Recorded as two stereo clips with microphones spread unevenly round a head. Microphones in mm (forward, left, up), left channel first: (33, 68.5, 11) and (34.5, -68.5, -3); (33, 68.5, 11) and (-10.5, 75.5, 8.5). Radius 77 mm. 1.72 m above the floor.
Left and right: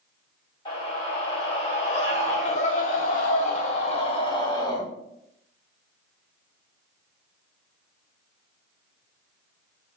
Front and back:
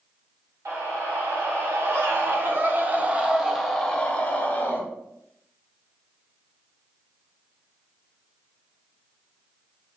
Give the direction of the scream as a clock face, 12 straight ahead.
7 o'clock.